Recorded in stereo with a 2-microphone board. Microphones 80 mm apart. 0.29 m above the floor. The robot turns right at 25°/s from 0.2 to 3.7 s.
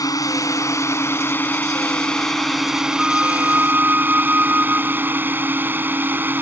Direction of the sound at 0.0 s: 120° left.